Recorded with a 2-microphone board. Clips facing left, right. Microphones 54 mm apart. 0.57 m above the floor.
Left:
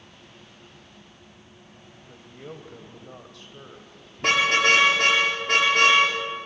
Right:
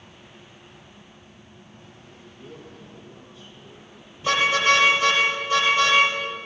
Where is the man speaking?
70° left (ahead or behind), 3 m.